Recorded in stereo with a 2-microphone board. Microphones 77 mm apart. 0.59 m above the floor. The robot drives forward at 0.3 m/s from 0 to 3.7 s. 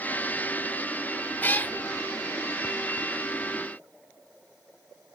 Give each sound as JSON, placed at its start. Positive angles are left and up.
{"t": 1.4, "sound": "a cat meowing", "side_deg": 30, "distance_m": 0.7}